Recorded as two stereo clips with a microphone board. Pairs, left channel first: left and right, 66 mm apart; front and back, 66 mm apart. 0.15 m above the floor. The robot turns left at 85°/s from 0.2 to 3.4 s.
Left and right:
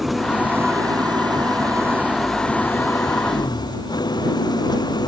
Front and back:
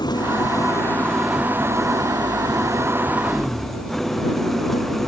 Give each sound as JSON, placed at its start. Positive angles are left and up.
{"t": 0.0, "sound": "an engine running", "azimuth_deg": 0}